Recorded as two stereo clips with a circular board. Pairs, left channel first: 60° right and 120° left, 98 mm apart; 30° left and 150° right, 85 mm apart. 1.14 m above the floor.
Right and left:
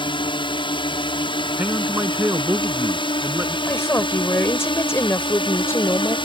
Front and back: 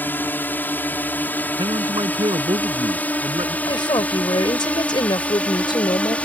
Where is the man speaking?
170° right.